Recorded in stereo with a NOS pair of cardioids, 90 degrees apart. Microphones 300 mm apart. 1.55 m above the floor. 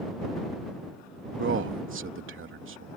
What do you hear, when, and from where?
1.4 s a man speaking: 40° right